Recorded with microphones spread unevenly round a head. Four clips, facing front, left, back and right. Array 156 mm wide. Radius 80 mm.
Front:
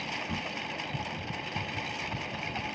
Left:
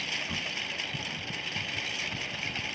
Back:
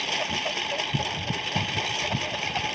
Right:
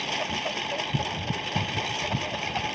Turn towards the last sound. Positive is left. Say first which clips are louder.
# right 8 dB, back 6 dB
turn(degrees=-150)